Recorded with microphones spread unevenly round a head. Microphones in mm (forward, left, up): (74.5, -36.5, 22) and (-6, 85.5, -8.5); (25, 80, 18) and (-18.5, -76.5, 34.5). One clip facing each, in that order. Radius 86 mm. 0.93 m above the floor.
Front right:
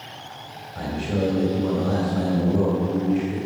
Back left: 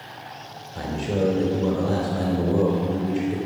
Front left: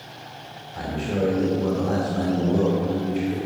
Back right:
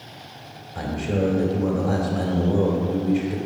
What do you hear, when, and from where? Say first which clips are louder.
0.8 s a man speaking: back left 1 dB, back right 1 dB; straight behind, 3 m